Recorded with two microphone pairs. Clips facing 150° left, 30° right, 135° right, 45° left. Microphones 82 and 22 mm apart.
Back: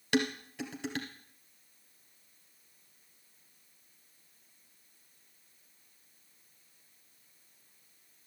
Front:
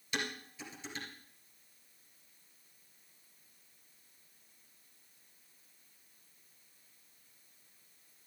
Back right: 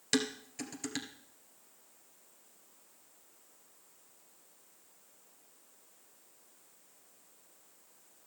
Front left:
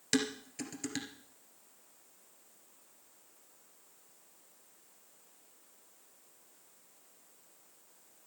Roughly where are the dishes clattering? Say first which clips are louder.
Back 9 dB, even; behind left.